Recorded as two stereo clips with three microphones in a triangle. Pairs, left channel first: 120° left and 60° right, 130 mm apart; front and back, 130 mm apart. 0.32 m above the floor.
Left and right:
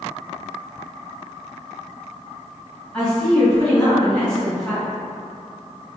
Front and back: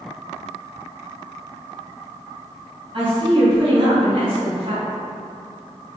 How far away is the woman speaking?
About 1.7 m.